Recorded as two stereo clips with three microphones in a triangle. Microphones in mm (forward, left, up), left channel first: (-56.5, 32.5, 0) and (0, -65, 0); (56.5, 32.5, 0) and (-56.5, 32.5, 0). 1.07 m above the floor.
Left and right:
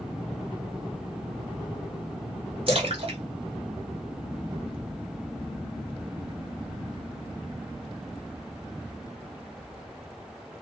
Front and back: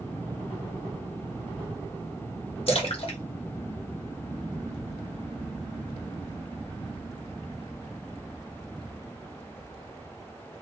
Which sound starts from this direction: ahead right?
A splash, at 2.7 s.